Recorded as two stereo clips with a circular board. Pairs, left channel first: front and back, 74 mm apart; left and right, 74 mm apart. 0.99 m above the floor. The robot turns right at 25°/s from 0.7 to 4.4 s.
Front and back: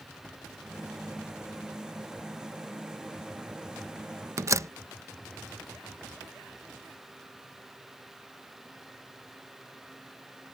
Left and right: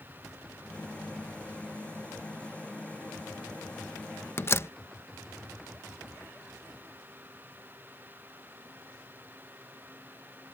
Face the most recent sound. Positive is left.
turn(degrees=140)